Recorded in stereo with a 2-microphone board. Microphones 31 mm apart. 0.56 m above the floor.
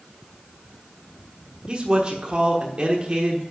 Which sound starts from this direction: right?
A man speaking, at 1.7 s.